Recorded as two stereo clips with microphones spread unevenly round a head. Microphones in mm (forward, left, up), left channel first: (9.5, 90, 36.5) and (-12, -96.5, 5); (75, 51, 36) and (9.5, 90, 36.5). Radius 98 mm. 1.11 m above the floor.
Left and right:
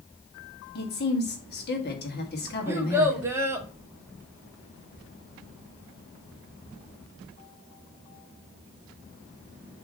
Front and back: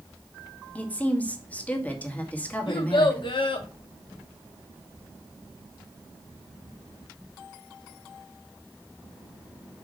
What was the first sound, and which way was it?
A woman speaking, 40° left.